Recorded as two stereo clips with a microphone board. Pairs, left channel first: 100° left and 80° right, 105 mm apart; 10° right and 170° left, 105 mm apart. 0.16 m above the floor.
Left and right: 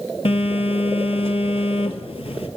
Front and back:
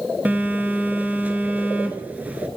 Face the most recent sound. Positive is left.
turn(degrees=95)